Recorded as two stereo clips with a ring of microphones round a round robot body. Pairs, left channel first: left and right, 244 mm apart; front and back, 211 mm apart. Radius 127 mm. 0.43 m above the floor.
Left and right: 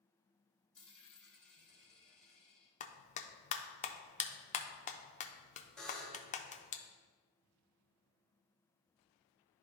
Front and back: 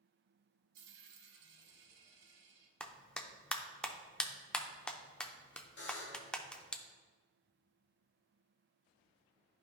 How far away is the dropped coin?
About 1.0 m.